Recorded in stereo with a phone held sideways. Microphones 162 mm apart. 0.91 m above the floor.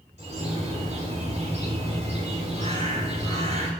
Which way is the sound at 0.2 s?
45° right (ahead or behind).